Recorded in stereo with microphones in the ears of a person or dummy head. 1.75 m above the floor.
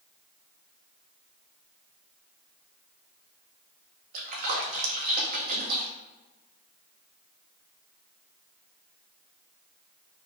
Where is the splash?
45° right (ahead or behind), 0.9 m.